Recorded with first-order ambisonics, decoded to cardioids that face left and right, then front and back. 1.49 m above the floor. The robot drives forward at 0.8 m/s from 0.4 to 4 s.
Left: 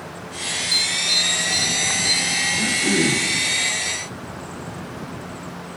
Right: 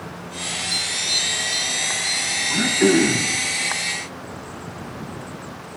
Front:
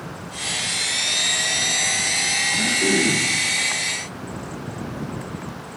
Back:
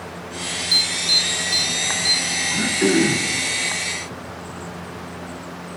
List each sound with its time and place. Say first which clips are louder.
0.7 s an alarm: left 4 dB, back 7 dB; 165° left, 1.9 m; by 2.3 s 170° left, 3 m
2.5 s throat clearing: right 2 dB, even; 110° right, 4.5 m; by 3.3 s 120° right, 5 m